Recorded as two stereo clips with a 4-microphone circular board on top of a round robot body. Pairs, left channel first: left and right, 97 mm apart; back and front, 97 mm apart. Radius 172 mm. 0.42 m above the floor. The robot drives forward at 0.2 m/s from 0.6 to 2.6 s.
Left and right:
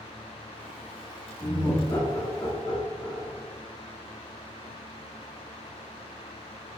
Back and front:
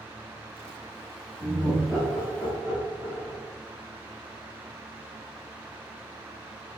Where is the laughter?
80° left, 1.8 m; by 3.4 s 95° left, 1.8 m.